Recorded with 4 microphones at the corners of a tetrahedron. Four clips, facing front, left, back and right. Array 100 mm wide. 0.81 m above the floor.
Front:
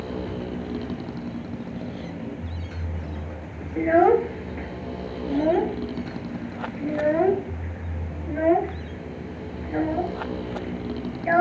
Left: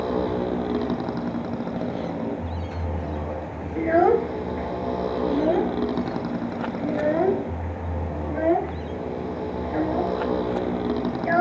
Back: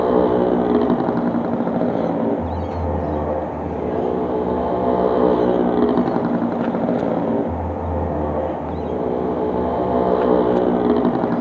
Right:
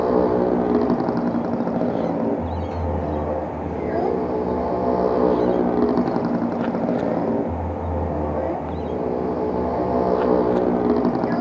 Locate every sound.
0.0 s a motorcycle: 155° right
3.8 s a child speaking: 35° left